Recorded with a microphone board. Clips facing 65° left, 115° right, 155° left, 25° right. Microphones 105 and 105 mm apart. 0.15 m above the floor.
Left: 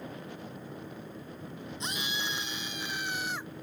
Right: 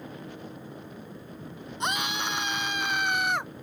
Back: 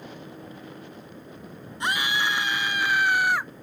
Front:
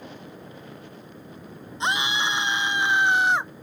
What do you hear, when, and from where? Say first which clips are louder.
1.8 s a scream: right 8 dB, front 1 dB; 90° right